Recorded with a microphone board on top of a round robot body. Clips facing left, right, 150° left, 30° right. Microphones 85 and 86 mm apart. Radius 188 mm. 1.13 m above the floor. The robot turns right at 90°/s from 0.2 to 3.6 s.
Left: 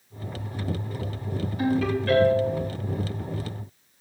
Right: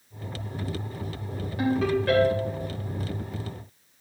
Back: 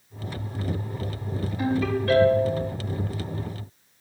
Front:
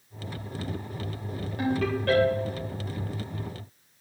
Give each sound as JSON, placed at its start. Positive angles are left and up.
{"t": 1.6, "sound": "a ringtone", "azimuth_deg": -60, "distance_m": 4.0}